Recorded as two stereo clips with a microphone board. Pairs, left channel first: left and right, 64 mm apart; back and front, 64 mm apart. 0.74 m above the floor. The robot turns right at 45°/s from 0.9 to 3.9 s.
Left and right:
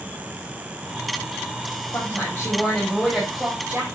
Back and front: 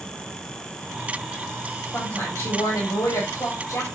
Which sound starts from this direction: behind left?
A woman speaking, at 1.9 s.